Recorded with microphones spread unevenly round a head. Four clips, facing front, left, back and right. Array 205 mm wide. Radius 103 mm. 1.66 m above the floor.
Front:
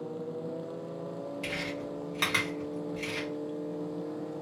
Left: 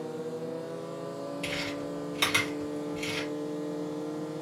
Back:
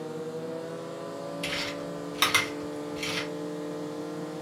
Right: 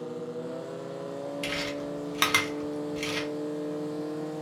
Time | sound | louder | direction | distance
1.4 | chewing | right 1 dB, back 2 dB | 120° right | 0.9 m